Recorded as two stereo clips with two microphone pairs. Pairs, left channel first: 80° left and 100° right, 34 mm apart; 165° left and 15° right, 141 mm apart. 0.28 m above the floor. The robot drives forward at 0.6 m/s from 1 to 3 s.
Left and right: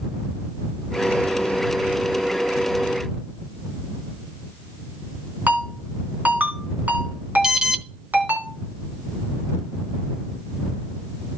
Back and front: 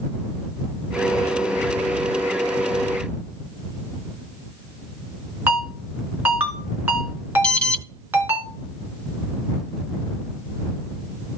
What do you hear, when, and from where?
5.5 s a ringtone: 85° right, 2.5 m
7.4 s an alarm: 125° right, 0.7 m